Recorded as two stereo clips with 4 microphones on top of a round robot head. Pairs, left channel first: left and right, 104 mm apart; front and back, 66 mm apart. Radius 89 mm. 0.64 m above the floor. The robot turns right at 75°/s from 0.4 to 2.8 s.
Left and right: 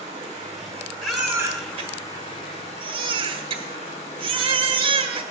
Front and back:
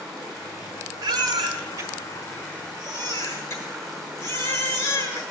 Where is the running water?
95° right, 3.5 m; by 5.3 s 85° left, 3.5 m.